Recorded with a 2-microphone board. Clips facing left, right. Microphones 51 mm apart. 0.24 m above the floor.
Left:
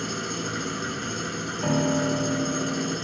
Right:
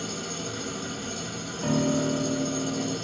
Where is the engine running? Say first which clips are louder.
Left 4 dB; 55° left (ahead or behind), 1.1 m.